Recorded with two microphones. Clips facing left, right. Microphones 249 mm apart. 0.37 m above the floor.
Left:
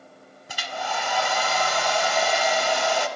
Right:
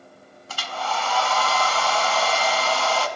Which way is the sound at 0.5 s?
15° left (ahead or behind).